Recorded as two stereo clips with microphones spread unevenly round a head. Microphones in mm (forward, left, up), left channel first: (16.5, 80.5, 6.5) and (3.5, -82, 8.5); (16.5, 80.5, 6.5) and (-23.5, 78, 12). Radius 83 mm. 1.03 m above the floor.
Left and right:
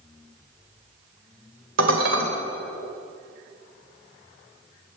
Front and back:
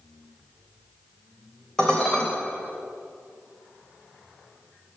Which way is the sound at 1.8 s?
85° right.